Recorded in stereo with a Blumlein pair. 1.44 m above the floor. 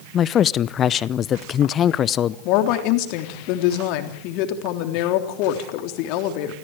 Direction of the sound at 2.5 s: 40° left.